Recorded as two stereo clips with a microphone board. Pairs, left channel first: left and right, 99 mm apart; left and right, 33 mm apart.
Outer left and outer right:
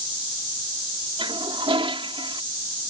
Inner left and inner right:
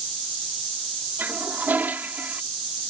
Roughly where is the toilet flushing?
Right.